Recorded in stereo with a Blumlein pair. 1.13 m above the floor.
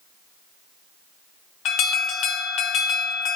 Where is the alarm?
35° left, 2.5 m.